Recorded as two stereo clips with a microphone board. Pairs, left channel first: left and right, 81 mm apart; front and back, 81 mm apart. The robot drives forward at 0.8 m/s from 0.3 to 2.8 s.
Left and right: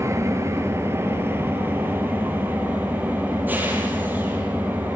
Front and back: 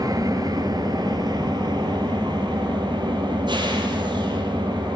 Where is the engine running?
140° right, 3 m; by 5.0 s 155° right, 5 m.